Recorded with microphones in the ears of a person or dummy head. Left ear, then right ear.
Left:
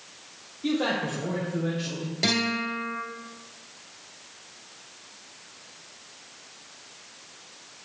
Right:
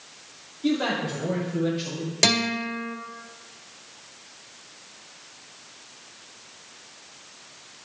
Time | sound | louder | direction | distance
0.6 | a man speaking | right 1 dB | 5° right (ahead or behind) | 1.7 m
2.2 | a guitar | right 3 dB | 50° right (ahead or behind) | 1.6 m